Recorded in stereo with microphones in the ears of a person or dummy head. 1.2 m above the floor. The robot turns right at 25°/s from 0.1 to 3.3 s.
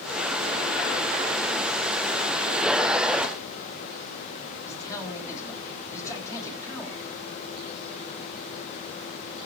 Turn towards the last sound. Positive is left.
turn(degrees=15)  # may be behind; listen again after turning